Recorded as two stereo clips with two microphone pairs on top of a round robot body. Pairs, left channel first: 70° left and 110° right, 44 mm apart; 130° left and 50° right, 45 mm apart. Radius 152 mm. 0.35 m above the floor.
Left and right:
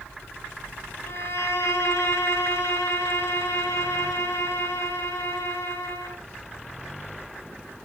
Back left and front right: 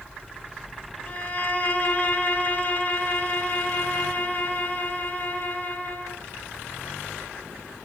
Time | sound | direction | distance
1.1 | a violin | 80° left | 2 m